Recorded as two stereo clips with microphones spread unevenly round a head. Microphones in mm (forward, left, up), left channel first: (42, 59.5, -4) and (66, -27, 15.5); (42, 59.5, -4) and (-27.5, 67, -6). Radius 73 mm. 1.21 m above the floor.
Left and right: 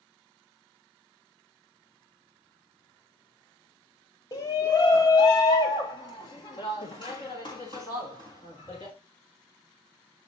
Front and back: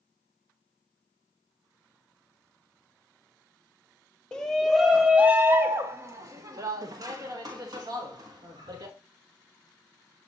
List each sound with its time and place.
4.3 s a shout: 70° left, 0.8 m; by 8.9 s 160° left, 2.5 m